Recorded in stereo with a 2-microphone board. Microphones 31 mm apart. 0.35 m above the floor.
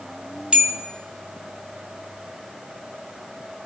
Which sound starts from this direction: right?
A bell, at 0.5 s.